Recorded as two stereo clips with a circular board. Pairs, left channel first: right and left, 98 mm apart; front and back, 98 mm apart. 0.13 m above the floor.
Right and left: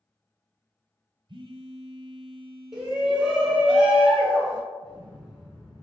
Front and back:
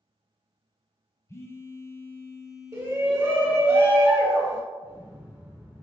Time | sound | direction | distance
1.3 | a phone buzzing | 60° left | 0.6 m
2.7 | a shout | 170° left | 1.3 m
4.8 | an explosion | 150° right | 1.2 m